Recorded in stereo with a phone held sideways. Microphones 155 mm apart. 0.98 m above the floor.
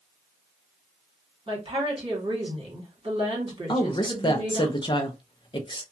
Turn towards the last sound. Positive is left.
turn(degrees=30)  # may be behind; listen again after turning